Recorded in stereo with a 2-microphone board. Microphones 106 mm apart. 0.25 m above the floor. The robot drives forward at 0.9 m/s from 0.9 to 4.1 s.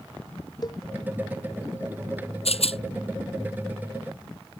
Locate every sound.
0.6 s a cowbell: 40° left (ahead or behind)
2.5 s a rattle: 70° left (ahead or behind); by 2.8 s 65° left (ahead or behind)